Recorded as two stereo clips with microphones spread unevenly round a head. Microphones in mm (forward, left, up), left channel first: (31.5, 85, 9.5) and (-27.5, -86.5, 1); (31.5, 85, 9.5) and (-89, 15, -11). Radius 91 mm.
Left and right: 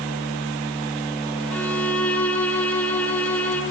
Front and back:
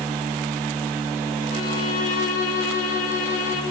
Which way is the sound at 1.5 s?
10° right.